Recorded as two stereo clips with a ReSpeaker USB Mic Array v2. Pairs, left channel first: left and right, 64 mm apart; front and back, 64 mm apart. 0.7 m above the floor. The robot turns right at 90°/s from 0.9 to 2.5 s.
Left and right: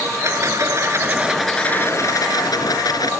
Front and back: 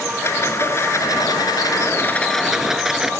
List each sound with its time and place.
0.2 s a rattle: 50° right; by 3.1 s 95° left